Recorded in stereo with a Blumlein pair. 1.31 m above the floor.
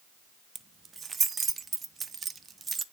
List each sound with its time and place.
0.6 s keys jangling: 15° right, 0.6 m